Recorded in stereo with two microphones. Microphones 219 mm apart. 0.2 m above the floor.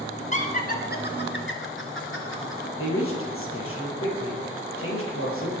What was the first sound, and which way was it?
Laughter, 35° left (ahead or behind).